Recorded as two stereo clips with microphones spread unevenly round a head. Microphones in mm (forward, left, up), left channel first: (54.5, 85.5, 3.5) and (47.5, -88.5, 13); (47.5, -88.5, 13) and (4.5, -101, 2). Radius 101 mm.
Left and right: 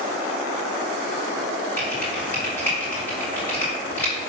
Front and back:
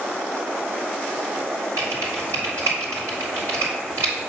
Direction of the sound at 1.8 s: 170° left.